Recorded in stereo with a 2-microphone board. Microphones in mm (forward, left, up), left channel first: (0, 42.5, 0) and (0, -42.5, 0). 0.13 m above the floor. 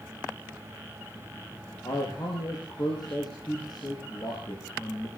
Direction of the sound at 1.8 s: 55° left (ahead or behind).